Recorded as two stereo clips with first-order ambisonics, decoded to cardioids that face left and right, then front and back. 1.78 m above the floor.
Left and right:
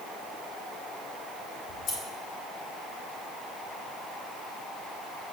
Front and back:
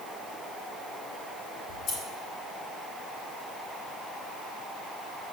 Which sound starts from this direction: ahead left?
Scissors, at 1.7 s.